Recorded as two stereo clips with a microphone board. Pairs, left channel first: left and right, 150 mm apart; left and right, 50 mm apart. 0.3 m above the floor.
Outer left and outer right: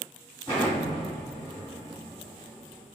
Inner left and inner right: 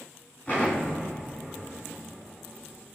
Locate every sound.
0.5 s an explosion: 40° left (ahead or behind), 2.0 m